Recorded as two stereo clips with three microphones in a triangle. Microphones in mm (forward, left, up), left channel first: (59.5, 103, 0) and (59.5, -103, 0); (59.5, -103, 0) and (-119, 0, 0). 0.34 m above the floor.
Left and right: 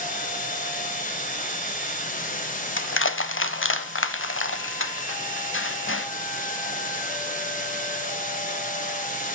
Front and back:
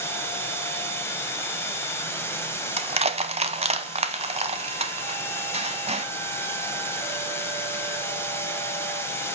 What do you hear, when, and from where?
0.0 s running water: 45° left, 1.2 m
2.8 s crushing: 95° left, 0.7 m